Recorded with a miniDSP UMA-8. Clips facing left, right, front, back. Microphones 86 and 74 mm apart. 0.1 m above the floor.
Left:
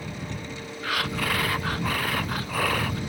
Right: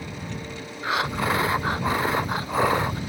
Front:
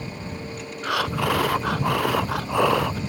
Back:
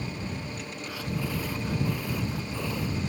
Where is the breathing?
20° right.